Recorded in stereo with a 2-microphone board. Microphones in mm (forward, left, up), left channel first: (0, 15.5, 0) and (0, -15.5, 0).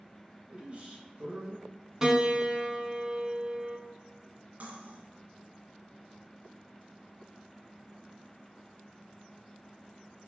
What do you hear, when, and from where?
0.5 s a man speaking: 40° right (ahead or behind), 1.8 m
2.0 s a piano: 20° right (ahead or behind), 0.7 m
4.6 s cutlery clinking: 50° right (ahead or behind), 1.4 m